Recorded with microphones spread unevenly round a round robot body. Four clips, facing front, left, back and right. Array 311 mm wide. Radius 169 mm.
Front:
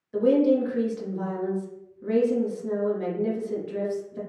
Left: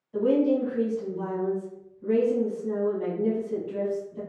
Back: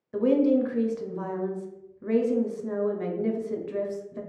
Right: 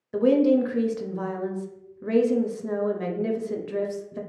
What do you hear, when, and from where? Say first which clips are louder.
0.1 s a woman speaking: right 3 dB, front 1 dB; 90° right, 0.7 m